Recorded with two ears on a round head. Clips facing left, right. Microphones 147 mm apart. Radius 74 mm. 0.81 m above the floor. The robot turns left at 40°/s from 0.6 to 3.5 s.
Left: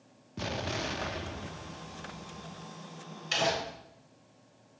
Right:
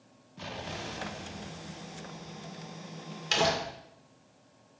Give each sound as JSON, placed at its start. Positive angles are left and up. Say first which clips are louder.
{"t": 0.4, "sound": "an explosion", "louder": "left 5 dB", "azimuth_deg": 120, "distance_m": 0.5}
{"t": 3.3, "sound": "crumpling", "louder": "right 2 dB", "side_deg": -60, "distance_m": 2.5}